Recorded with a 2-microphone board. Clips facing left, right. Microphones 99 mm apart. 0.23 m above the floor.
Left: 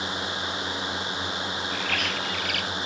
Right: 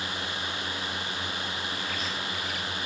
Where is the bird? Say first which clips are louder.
Left 4 dB; 75° left (ahead or behind).